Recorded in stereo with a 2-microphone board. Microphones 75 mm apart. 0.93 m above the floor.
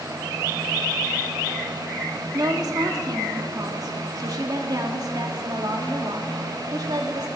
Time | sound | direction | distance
2.3 | a woman speaking | 55° right (ahead or behind) | 1.8 m